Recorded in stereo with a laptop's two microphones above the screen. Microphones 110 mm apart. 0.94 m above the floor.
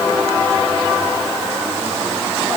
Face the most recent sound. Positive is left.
No sound to turn to.